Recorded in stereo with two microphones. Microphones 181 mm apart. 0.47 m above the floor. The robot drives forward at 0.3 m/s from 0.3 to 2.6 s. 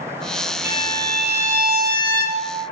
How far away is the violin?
About 1.6 m.